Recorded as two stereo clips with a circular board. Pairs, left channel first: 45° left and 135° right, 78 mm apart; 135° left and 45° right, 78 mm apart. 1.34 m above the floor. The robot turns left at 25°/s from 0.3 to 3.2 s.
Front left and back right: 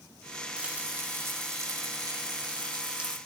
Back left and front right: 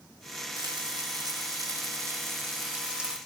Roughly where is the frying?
Ahead right.